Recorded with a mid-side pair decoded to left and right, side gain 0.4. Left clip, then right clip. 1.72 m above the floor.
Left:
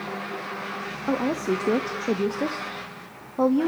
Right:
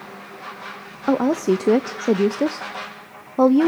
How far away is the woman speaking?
About 0.7 m.